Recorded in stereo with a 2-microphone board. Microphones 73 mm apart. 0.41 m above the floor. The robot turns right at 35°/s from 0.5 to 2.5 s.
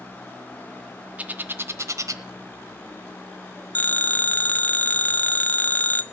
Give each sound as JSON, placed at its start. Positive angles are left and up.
{"t": 1.2, "sound": "a bird", "side_deg": -20, "distance_m": 0.9}
{"t": 3.8, "sound": "a phone ringing", "side_deg": 25, "distance_m": 0.7}